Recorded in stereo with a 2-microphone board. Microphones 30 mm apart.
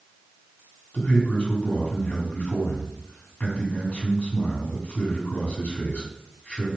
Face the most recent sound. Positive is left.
turn(degrees=50)  # may be behind; listen again after turning